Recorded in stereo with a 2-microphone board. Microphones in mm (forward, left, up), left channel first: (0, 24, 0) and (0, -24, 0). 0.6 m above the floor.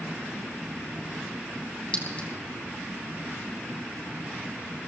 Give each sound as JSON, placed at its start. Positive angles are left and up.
{"t": 1.9, "sound": "a clink", "side_deg": 25, "distance_m": 3.5}